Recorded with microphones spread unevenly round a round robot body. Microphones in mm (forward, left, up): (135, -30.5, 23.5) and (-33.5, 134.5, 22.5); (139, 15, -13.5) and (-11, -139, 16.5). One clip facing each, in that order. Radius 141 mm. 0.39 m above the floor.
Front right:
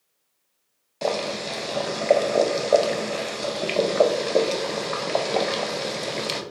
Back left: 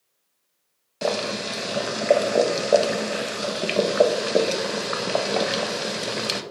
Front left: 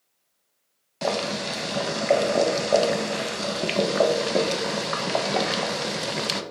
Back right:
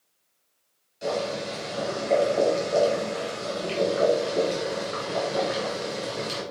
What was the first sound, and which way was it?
Boiling, 55° left.